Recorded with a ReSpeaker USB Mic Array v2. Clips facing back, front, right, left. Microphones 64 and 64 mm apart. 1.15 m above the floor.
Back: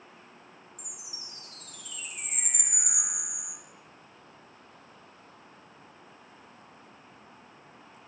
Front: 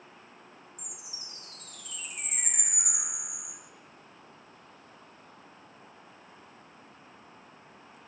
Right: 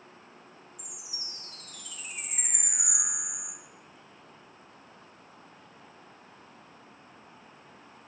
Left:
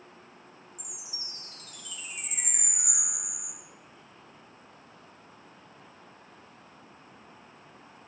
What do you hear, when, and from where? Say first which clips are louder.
0.8 s a chime: even, even; 30° right, 1.8 m